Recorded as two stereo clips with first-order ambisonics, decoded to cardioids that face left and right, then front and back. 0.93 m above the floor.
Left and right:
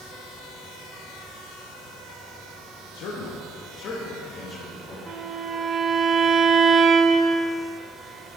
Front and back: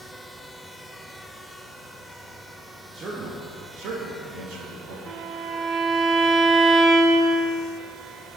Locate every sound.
2.9 s a man speaking: 115° left, 0.9 m; by 5.0 s 165° left, 1.6 m
5.1 s a violin: 140° right, 0.7 m